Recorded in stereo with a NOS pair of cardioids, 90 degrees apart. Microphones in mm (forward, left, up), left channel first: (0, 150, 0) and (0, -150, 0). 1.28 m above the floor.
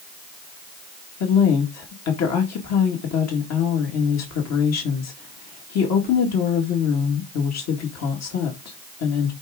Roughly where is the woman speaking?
Ahead left.